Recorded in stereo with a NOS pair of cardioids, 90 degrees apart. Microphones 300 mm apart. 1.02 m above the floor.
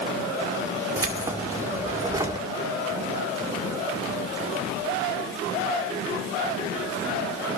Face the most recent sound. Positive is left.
turn(degrees=-10)